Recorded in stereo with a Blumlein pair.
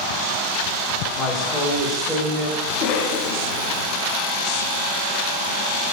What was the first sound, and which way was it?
A woman speaking, 5° left.